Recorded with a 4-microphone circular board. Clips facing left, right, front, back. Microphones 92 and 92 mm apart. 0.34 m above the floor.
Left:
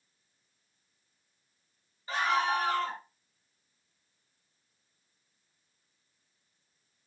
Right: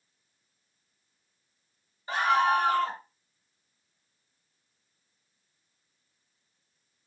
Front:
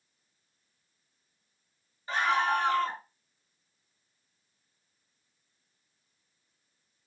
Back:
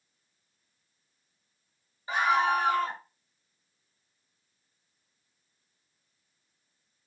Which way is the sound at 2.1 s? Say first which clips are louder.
Right 5 dB, back 2 dB; 120° right.